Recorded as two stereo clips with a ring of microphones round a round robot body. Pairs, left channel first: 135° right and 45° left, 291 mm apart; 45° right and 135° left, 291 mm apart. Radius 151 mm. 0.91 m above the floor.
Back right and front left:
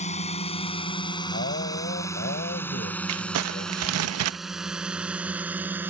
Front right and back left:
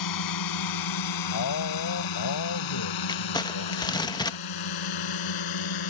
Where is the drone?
65° right; by 5.9 s 40° right.